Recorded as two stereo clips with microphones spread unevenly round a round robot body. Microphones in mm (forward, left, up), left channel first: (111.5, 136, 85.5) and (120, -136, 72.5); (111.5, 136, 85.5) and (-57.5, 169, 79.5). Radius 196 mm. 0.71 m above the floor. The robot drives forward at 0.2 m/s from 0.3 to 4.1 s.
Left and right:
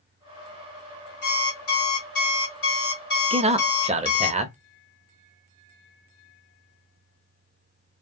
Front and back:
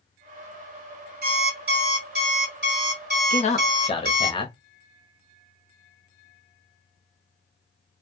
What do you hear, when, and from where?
1.2 s an alarm clock: 140° left, 1.6 m; by 4.3 s 150° left, 2 m
3.3 s a man speaking: 30° right, 0.7 m; by 4.6 s 45° right, 0.6 m